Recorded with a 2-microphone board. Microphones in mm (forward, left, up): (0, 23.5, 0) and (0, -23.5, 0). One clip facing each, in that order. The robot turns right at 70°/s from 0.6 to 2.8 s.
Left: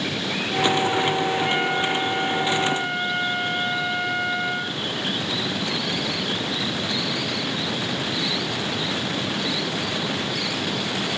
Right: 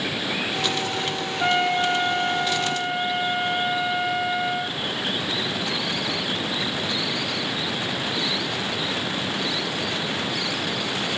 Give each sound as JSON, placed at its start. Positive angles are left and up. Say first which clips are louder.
{"t": 1.4, "sound": "a trumpet", "louder": "right 1 dB", "azimuth_deg": -125, "distance_m": 1.9}